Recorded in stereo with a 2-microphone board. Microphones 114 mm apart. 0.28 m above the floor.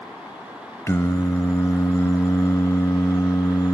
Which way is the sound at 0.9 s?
30° left (ahead or behind).